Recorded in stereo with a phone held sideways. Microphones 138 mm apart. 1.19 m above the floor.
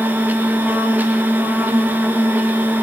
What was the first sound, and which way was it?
A machine running, 15° right (ahead or behind).